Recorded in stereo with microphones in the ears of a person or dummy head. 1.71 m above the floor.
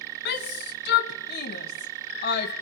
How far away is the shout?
About 1.6 m.